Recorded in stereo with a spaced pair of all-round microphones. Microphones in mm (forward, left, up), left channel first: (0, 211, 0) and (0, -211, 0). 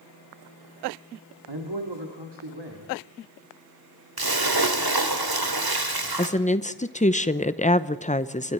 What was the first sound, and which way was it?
A man speaking, 80° right.